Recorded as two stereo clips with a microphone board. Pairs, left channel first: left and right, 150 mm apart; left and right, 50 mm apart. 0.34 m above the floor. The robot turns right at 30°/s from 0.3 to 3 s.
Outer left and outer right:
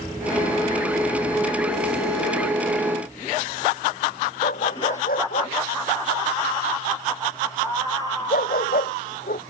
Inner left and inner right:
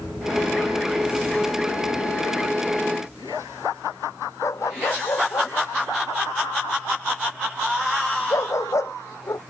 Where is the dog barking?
75° left (ahead or behind).